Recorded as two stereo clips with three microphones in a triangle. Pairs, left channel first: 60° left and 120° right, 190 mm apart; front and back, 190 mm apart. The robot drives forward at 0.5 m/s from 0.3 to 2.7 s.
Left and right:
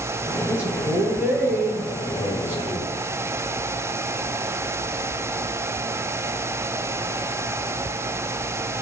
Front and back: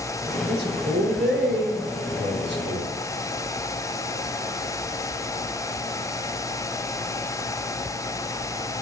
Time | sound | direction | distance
0.5 | a man speaking | 160° left | 4.5 m